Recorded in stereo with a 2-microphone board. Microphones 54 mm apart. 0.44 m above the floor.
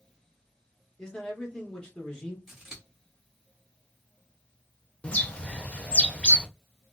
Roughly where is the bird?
Left.